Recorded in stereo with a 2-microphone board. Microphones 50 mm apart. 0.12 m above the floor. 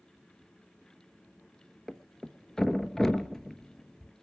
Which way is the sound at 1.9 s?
10° left (ahead or behind).